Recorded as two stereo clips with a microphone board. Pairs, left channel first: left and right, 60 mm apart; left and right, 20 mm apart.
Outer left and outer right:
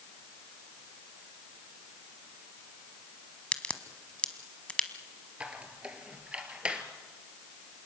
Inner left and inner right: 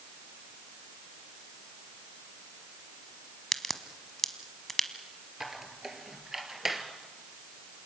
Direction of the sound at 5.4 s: 20° right (ahead or behind).